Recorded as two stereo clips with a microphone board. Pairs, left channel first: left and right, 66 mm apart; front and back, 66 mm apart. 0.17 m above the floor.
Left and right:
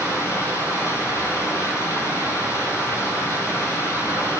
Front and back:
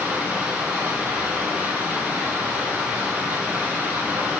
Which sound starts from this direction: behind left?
Running water, at 0.0 s.